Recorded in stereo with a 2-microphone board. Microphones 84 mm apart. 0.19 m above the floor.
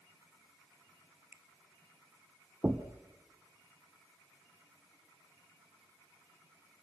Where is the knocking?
25° right (ahead or behind), 1.3 m.